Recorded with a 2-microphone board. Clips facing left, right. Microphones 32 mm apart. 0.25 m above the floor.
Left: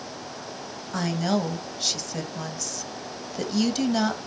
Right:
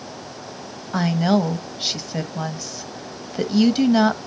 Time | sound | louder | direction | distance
0.9 | a woman speaking | right 6 dB | 25° right (ahead or behind) | 1.2 m